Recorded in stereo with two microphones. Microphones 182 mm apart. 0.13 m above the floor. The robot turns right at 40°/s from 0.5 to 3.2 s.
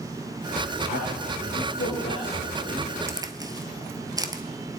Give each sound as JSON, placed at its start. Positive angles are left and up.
{"t": 0.9, "sound": "a man speaking", "side_deg": 80, "distance_m": 8.0}
{"t": 3.1, "sound": "a crack", "side_deg": -15, "distance_m": 0.8}